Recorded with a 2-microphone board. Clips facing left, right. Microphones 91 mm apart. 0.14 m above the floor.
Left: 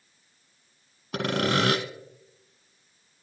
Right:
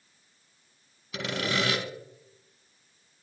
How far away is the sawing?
About 1.0 m.